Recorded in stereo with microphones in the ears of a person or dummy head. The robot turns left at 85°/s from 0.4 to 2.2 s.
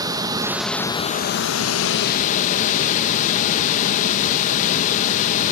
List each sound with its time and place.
0.0 s running water: 150° right, 1.2 m; by 5.5 s 55° left, 1.2 m